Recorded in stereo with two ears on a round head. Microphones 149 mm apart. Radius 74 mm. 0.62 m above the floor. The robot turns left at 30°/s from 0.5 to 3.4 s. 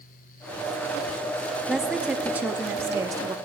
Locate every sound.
1.7 s a woman speaking: centre (ahead or behind), 0.6 m; by 3.4 s 20° right (ahead or behind), 0.6 m